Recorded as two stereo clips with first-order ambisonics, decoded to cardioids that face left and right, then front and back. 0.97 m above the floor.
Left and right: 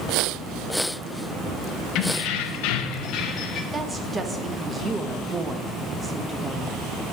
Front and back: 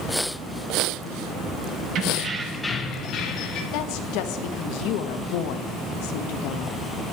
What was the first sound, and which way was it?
Keys jangling, 135° left.